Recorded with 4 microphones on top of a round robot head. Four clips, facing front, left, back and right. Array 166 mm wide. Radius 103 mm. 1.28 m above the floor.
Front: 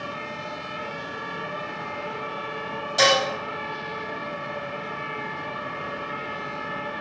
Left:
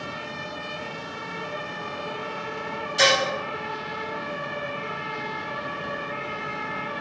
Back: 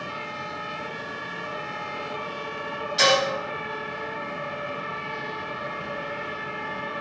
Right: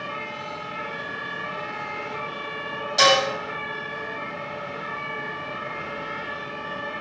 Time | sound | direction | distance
3.0 | dishes clattering | 40° right | 1.6 m